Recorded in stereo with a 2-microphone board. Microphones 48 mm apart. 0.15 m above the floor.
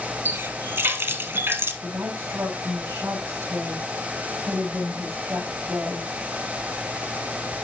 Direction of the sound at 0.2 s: 55° right (ahead or behind).